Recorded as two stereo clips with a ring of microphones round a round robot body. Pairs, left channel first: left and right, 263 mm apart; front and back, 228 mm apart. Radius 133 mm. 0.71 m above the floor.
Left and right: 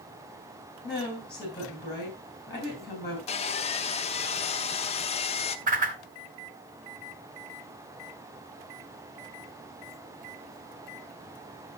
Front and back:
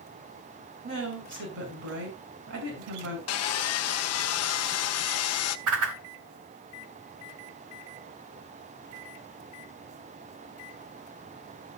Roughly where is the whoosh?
Behind right.